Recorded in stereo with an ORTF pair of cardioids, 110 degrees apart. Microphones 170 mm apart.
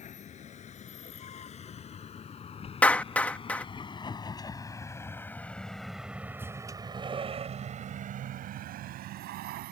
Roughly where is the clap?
Ahead.